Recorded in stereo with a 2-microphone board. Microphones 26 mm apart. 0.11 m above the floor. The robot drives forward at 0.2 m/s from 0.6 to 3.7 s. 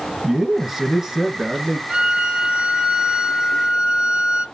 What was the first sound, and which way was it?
A man speaking, 20° right (ahead or behind).